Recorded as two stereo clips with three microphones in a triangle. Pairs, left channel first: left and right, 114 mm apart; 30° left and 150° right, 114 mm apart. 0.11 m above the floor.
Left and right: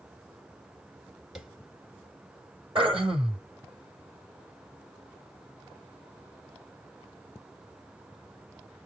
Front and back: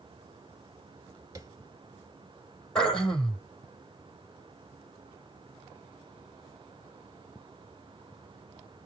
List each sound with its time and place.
1.4 s tapping: 175° right, 1.9 m
2.8 s throat clearing: 55° right, 4 m